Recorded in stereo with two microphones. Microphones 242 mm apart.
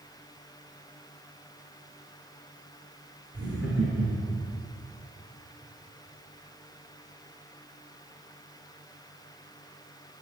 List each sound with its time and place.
3.3 s laughter: 60° right (ahead or behind), 6.5 m; by 4.5 s 50° right (ahead or behind), 5.5 m